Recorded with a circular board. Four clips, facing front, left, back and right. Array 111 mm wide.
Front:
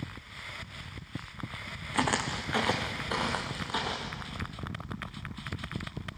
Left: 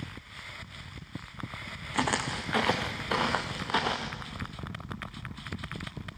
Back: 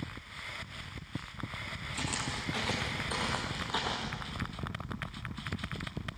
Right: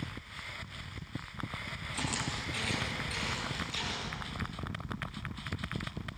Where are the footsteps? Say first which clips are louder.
Left 8 dB, front 9 dB; 40° left, 1.7 m; by 4.2 s 95° left, 2.5 m.